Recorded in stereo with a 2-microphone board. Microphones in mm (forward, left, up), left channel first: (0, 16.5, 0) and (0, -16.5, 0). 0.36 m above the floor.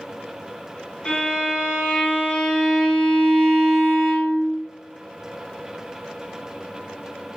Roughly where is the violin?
Left.